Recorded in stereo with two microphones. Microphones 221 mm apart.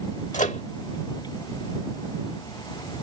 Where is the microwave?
35° left (ahead or behind).